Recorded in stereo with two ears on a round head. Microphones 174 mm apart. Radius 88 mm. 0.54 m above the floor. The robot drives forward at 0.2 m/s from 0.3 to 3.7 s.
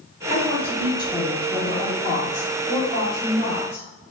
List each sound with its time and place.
0.3 s a woman speaking: 20° left (ahead or behind), 0.7 m; by 3.9 s 15° left (ahead or behind), 1.2 m